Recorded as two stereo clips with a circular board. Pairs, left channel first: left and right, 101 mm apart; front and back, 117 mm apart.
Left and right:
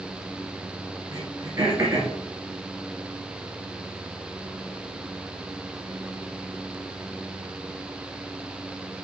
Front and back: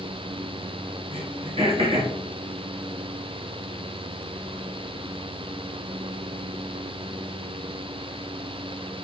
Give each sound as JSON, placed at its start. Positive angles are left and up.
{"t": 1.1, "sound": "throat clearing", "azimuth_deg": -150, "distance_m": 2.5}